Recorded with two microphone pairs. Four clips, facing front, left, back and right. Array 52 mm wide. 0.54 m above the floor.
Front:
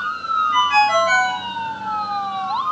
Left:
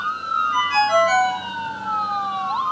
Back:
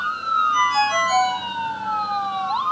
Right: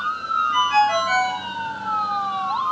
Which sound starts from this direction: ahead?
A ringtone, at 0.5 s.